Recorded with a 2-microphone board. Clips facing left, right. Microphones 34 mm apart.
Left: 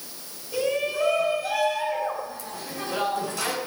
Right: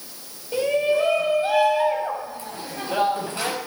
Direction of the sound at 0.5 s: 35° right (ahead or behind).